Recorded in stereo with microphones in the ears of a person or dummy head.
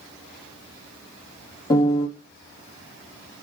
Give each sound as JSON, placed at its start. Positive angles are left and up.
{"t": 1.7, "sound": "a piano", "side_deg": 15, "distance_m": 1.1}